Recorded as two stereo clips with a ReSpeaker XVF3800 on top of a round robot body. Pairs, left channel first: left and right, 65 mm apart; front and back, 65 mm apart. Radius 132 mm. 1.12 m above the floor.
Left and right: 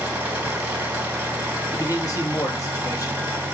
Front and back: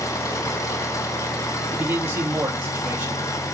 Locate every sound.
0.0 s an engine running: 25° right, 3 m
1.7 s a man speaking: 120° left, 3 m